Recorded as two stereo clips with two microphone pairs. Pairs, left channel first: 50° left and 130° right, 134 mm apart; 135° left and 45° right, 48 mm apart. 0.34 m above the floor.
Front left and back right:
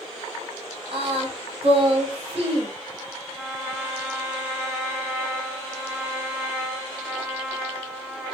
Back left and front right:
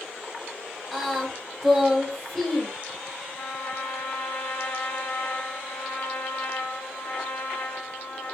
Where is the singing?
135° right, 1.7 m.